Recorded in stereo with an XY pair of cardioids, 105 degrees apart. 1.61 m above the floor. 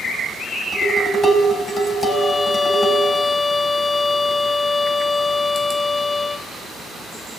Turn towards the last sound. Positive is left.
turn(degrees=30)